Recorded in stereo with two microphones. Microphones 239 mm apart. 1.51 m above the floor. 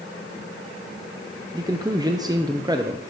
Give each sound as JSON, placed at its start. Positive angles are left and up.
{"t": 1.5, "sound": "a man speaking", "side_deg": -15, "distance_m": 0.6}